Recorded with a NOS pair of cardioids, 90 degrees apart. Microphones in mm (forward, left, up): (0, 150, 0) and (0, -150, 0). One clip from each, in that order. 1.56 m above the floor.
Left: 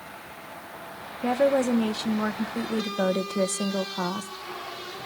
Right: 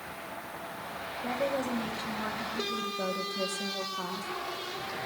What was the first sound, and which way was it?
A woman speaking, 70° left.